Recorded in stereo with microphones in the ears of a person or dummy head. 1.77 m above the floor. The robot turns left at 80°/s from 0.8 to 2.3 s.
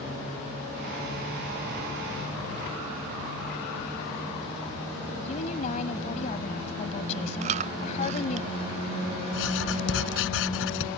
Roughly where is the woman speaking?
Left.